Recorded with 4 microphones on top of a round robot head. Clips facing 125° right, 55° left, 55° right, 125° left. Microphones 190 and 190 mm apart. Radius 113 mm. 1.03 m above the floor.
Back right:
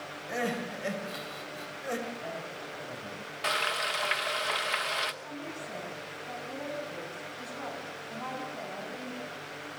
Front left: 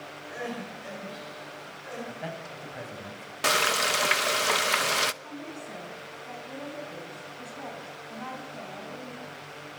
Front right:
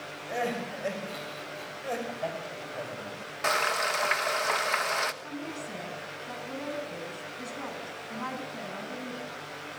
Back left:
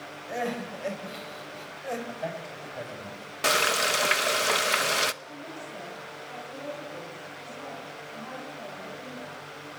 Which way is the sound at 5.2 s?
35° right.